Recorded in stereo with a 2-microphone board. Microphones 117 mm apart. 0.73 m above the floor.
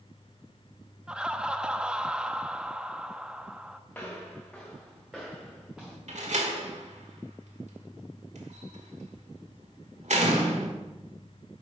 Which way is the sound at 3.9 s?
15° left (ahead or behind).